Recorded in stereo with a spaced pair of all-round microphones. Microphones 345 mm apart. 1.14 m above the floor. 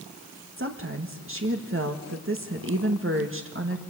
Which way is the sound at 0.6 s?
40° right (ahead or behind).